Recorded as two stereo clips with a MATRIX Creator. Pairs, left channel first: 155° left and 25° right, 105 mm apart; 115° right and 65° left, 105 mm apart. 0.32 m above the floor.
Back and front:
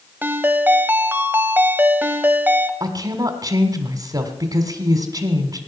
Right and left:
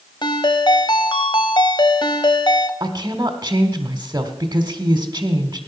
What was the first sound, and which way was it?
A ringtone, 90° right.